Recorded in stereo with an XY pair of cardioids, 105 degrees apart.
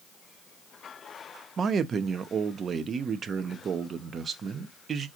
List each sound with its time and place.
1.6 s a man speaking: 45° right, 0.7 m